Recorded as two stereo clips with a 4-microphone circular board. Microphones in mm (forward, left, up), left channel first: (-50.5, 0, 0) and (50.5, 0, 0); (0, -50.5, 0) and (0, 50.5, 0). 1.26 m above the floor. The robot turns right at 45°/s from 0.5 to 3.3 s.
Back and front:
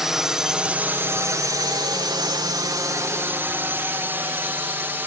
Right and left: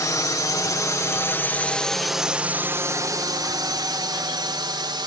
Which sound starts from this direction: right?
A drone, at 0.0 s.